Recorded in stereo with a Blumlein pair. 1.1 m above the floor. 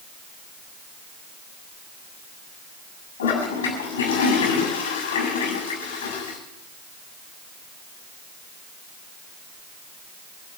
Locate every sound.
3.2 s a toilet flushing: 65° left, 6.5 m